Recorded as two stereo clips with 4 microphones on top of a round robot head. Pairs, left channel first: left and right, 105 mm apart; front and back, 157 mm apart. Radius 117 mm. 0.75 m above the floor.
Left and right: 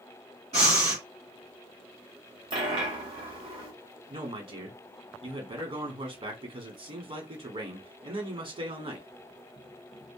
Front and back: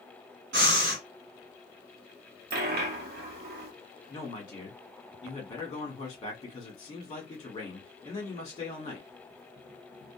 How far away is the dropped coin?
About 0.6 m.